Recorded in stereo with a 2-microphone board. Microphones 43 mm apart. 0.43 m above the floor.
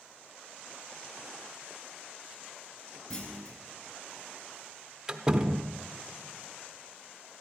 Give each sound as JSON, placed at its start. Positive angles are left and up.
{"t": 3.1, "sound": "a clunk", "side_deg": 25, "distance_m": 2.5}
{"t": 5.1, "sound": "a door slam", "side_deg": -20, "distance_m": 0.7}